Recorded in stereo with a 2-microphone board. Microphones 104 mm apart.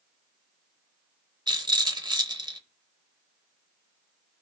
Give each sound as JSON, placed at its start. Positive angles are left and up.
{"t": 1.5, "sound": "a rattle", "side_deg": -45, "distance_m": 0.8}